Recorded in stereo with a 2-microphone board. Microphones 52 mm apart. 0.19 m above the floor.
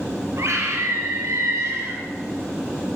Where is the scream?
70° right (ahead or behind), 3 m; by 2.0 s 60° right (ahead or behind), 2.5 m.